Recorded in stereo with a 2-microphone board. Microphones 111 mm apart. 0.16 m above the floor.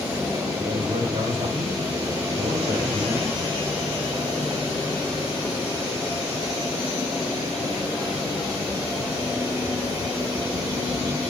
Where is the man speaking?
70° right (ahead or behind), 4 m.